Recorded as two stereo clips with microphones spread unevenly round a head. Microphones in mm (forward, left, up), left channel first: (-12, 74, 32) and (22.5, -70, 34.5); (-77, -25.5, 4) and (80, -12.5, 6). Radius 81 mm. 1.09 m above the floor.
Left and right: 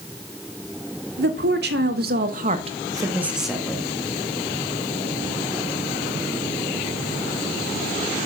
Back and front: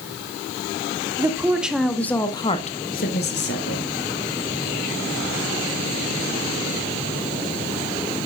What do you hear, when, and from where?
1.2 s a woman speaking: 70° right, 2.5 m; by 3.8 s 175° right, 2 m